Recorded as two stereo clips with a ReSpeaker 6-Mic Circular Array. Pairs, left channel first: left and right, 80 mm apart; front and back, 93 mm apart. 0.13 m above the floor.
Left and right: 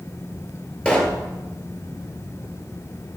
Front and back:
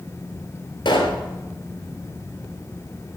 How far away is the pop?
About 1.1 m.